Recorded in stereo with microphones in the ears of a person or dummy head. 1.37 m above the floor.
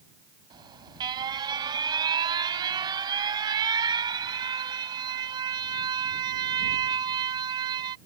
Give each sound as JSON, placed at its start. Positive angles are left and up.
{"t": 0.5, "sound": "an alarm", "side_deg": -25}